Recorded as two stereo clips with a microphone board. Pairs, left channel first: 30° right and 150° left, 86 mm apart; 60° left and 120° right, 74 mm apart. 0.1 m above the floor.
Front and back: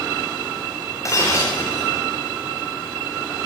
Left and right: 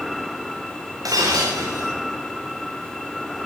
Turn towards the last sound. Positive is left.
turn(degrees=-85)